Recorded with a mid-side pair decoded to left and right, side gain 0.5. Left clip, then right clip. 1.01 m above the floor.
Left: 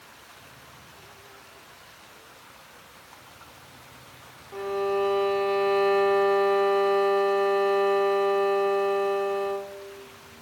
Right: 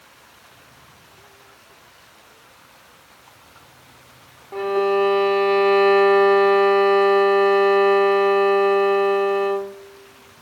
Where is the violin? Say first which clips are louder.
Right 7 dB; 50° right, 0.6 m.